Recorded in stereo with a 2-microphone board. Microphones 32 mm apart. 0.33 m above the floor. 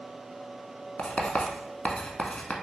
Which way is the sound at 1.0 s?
45° left (ahead or behind).